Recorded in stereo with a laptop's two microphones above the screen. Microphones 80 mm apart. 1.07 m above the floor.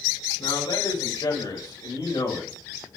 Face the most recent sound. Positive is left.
turn(degrees=80)